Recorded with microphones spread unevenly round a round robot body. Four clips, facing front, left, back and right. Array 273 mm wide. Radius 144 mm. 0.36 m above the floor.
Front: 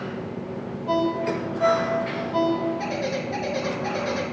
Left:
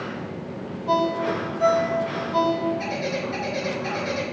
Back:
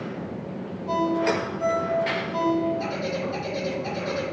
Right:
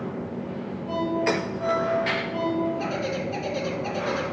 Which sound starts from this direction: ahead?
A bird, at 2.8 s.